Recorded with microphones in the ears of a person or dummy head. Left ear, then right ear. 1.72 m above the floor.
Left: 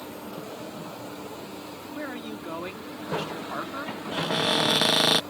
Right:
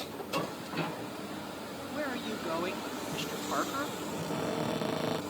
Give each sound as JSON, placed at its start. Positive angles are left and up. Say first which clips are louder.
{"t": 1.9, "sound": "a man speaking", "louder": "right 1 dB", "side_deg": -5}
{"t": 4.1, "sound": "a cupboard door", "louder": "left 13 dB", "side_deg": 55}